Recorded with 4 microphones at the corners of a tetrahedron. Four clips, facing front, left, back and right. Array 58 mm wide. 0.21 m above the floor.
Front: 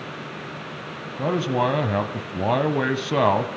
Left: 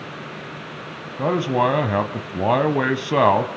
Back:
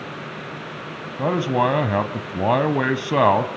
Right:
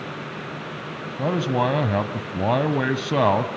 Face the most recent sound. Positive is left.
turn(degrees=140)